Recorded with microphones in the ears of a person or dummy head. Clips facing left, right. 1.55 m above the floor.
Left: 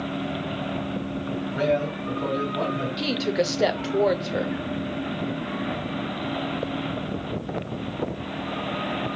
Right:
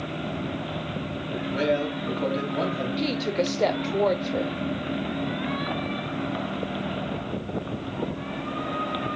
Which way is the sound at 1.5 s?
45° right (ahead or behind).